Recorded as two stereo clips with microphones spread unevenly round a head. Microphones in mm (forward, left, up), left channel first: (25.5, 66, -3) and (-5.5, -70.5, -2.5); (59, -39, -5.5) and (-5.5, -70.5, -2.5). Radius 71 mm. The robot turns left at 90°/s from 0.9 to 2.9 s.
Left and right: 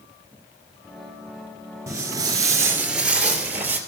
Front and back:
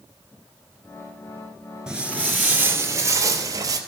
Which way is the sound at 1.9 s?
105° right.